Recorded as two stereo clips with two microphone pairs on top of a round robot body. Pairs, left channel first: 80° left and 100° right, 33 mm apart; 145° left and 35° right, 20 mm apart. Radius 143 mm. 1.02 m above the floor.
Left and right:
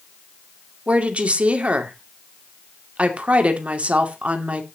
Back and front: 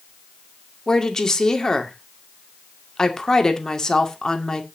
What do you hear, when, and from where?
0.9 s a woman speaking: 155° right, 2.5 m